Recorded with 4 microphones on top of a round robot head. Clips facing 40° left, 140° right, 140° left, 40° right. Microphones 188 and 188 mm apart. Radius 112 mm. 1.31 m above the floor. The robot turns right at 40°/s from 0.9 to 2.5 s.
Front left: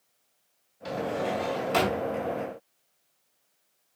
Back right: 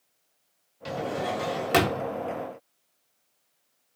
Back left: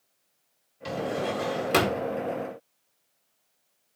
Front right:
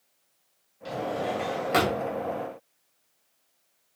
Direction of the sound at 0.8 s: 165° left.